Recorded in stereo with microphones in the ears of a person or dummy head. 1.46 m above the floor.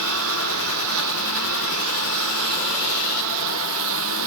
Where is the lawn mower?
85° right.